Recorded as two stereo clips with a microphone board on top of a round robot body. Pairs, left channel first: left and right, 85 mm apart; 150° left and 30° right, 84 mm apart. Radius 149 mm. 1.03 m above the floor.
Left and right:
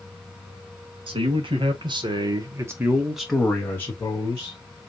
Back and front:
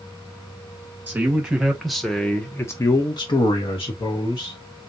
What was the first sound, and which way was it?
A man speaking, 105° right.